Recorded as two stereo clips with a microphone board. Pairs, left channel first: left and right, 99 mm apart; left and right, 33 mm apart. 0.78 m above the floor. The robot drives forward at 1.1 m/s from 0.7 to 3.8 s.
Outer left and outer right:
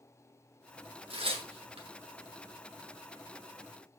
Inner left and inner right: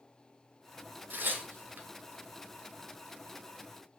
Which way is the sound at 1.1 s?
75° right (ahead or behind).